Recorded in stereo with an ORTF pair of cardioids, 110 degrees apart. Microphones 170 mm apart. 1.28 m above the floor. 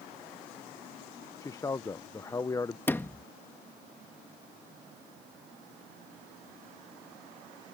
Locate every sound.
1.4 s a man speaking: 20° left
2.9 s a sliding door: 15° left